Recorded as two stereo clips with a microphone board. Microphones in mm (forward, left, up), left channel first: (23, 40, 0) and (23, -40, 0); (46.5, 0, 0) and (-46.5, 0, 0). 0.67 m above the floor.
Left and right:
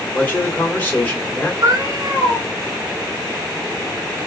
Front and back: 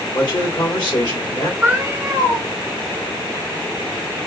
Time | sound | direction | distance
0.1 | a man speaking | 25° left | 1.4 m
1.6 | a cat meowing | 110° right | 1.0 m